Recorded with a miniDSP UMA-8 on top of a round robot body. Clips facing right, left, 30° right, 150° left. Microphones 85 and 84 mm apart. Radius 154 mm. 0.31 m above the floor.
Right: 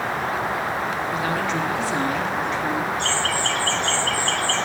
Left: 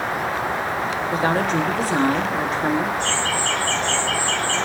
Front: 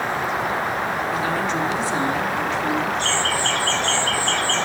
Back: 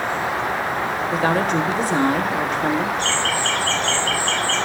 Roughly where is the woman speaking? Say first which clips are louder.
Left 7 dB, back 3 dB; behind left.